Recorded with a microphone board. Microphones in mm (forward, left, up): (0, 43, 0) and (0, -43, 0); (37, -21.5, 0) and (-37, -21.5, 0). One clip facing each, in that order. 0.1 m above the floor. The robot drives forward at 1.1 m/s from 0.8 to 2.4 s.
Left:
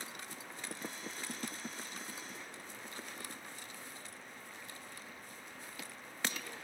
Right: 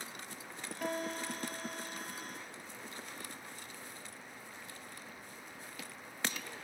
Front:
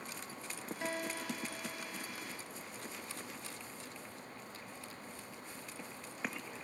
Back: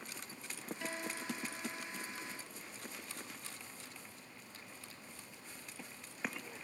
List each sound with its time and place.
0.8 s a guitar: 65° right; by 2.1 s 70° right